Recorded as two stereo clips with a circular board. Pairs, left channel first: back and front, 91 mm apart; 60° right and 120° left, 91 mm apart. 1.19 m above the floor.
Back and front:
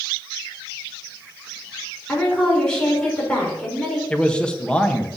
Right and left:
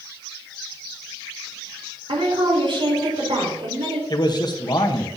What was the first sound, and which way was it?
A woman speaking, 100° left.